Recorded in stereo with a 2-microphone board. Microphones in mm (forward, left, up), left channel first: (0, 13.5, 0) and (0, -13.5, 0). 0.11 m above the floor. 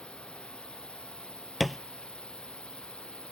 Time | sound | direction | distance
0.0 | a drone | 35° left (ahead or behind) | ?
1.6 | a thud | 5° right (ahead or behind) | ?